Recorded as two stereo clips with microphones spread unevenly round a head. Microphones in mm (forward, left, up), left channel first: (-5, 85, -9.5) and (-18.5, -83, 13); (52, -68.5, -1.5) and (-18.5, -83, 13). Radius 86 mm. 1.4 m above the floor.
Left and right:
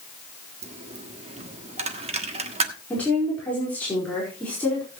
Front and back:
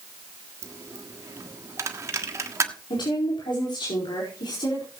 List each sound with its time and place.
0.6 s a dropped coin: 140° right, 1.4 m
2.9 s a woman speaking: 5° left, 4.5 m